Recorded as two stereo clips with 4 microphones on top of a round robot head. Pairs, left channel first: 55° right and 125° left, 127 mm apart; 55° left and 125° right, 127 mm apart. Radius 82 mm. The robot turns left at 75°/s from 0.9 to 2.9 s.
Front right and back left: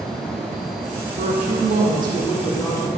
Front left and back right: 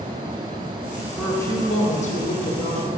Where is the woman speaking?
140° left, 2.5 m; by 2.9 s 10° left, 2.5 m.